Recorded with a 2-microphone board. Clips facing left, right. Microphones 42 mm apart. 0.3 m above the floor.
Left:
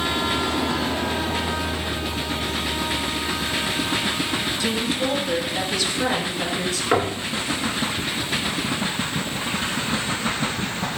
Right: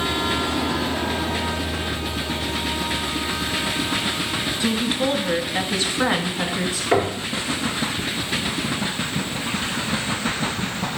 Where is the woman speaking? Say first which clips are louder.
Right 4 dB; 25° right (ahead or behind), 1.4 m; by 6.8 s 20° right (ahead or behind), 1.2 m.